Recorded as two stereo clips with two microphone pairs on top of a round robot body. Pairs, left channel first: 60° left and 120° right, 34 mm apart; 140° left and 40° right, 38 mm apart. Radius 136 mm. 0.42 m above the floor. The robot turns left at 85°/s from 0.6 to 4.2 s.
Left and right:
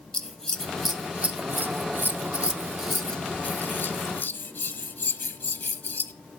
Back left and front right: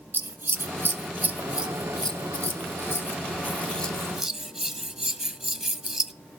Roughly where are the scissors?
Ahead.